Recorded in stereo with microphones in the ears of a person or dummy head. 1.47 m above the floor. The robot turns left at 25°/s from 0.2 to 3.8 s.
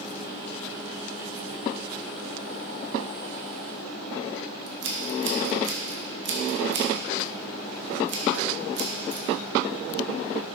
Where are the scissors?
70° right (ahead or behind), 1.6 m.